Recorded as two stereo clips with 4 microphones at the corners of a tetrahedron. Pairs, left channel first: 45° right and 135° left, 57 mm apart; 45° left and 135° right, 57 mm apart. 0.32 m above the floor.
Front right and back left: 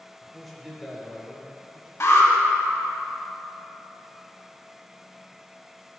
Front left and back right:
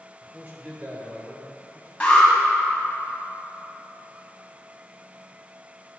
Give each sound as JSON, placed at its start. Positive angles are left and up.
{"t": 0.2, "sound": "a man speaking", "azimuth_deg": -135, "distance_m": 1.1}
{"t": 2.0, "sound": "an alarm", "azimuth_deg": -20, "distance_m": 1.8}